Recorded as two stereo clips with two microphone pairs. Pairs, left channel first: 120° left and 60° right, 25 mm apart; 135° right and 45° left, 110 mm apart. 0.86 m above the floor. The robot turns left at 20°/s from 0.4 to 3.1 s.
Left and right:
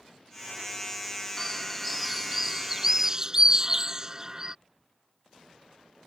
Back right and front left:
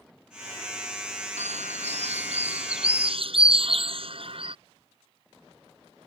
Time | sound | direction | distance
1.4 | a bird | 45° left | ?